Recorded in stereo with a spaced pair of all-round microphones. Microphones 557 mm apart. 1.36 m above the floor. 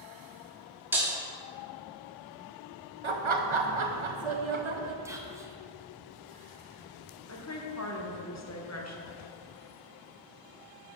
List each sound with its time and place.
0.9 s breaking glass: 5° right (ahead or behind), 1.2 m
3.0 s laughter: 60° right (ahead or behind), 0.8 m
5.0 s whispering: 5° right (ahead or behind), 0.6 m
7.3 s a woman speaking: 30° left (ahead or behind), 0.9 m